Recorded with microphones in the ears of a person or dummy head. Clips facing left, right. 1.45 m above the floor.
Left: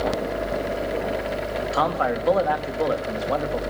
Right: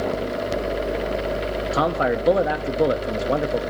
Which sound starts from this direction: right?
A man speaking, at 1.7 s.